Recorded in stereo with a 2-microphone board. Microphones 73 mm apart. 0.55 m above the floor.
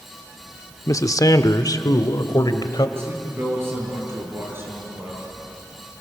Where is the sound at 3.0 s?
35° right (ahead or behind), 8 m.